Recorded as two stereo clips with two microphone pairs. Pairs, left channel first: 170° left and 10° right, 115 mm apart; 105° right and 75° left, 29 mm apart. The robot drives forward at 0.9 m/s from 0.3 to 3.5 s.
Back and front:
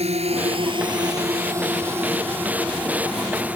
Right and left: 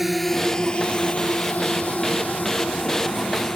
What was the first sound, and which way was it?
A drone, 5° right.